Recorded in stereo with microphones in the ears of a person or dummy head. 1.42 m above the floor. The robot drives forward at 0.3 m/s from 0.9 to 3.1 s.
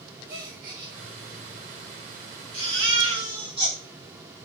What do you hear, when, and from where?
0.3 s a gasp: 55° right (ahead or behind), 0.7 m
2.5 s a baby crying: 30° right (ahead or behind), 1.0 m; by 3.8 s 25° right (ahead or behind), 1.1 m